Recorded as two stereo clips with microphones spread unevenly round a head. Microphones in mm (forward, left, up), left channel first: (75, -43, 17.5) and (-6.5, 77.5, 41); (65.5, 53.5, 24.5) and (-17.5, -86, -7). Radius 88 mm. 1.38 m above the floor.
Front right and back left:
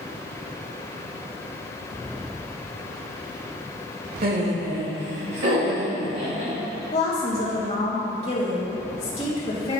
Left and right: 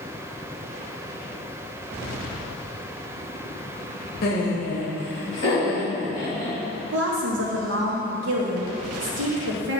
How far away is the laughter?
About 1.7 m.